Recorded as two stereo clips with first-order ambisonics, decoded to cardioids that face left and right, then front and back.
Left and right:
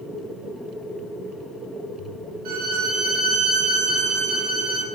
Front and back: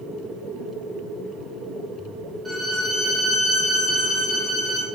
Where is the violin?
90° right, 1.1 m.